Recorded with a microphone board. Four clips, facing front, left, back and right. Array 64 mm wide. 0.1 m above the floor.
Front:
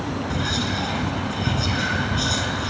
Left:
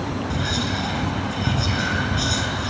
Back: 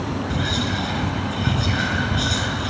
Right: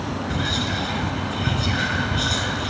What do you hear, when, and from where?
0.3 s whispering: 130° right, 1.1 m